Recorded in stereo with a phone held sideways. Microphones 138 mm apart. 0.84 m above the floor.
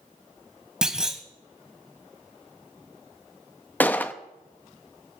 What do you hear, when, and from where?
0.8 s a clunk: 5° right (ahead or behind), 1.8 m
3.8 s a gunshot: 15° left (ahead or behind), 0.9 m